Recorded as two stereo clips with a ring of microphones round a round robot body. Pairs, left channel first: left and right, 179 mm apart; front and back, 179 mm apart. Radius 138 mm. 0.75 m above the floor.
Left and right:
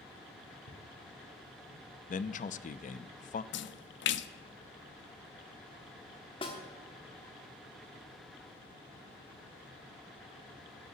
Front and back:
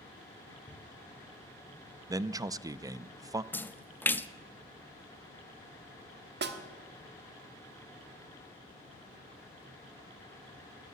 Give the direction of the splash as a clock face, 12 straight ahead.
9 o'clock.